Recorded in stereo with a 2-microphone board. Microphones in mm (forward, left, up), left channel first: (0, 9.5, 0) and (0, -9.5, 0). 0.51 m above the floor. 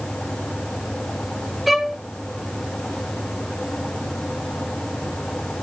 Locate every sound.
1.7 s a violin: 10° right (ahead or behind), 1.1 m